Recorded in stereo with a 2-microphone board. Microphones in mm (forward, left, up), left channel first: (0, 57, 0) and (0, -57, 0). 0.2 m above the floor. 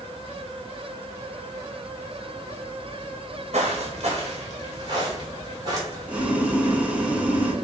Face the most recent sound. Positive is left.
turn(degrees=-10)  # may be behind; listen again after turning